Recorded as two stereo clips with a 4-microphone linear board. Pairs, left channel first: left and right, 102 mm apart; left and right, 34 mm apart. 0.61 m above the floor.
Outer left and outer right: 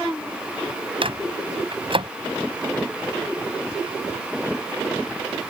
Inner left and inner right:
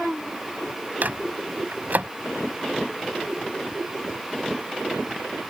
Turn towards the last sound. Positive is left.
turn(degrees=-60)  # may be behind; listen again after turning